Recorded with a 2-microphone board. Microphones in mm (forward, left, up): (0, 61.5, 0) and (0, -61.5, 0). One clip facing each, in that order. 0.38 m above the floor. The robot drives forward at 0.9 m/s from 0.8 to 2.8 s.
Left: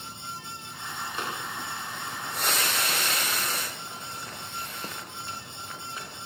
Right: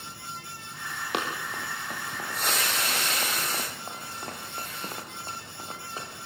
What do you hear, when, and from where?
1.1 s running footsteps: 75° right (ahead or behind), 6 m; by 6.3 s 30° right (ahead or behind), 5.5 m